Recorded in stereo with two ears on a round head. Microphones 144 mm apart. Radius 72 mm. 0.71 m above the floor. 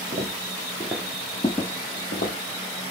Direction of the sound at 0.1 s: 35° right (ahead or behind).